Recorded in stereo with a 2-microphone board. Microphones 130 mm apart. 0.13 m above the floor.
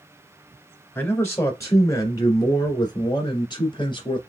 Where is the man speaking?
20° left (ahead or behind), 2 m; by 4.2 s 35° left (ahead or behind), 2 m.